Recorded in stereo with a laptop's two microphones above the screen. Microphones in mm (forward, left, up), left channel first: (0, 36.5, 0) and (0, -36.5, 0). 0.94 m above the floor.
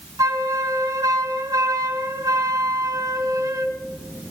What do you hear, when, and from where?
0.2 s a flute: 55° right (ahead or behind), 2 m